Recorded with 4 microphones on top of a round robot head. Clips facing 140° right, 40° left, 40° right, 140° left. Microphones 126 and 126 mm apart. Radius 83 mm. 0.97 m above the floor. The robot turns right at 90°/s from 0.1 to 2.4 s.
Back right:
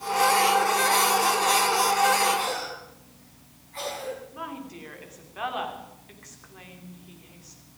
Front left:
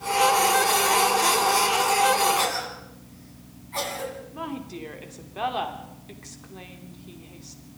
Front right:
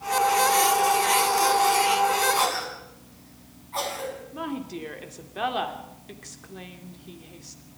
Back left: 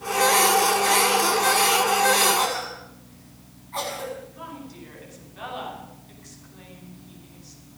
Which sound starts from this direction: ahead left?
A cough, at 2.4 s.